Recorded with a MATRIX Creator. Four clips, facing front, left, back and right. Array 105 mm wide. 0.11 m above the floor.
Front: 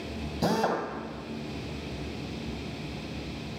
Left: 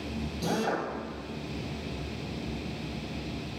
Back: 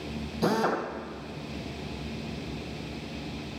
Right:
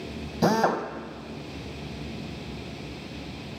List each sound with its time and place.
0.4 s a drill: 85° right, 2.5 m